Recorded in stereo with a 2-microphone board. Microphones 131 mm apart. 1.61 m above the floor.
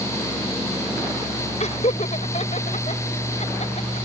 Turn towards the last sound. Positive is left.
turn(degrees=55)  # may be behind; listen again after turning